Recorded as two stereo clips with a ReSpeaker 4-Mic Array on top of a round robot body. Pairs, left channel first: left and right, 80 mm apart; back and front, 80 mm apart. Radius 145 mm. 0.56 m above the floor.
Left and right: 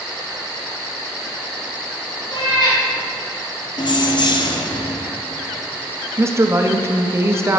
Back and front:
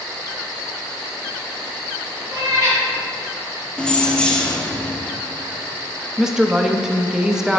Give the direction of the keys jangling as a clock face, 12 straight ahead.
9 o'clock.